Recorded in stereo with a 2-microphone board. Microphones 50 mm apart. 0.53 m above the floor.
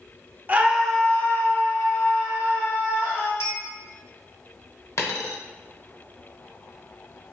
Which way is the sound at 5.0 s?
70° left (ahead or behind).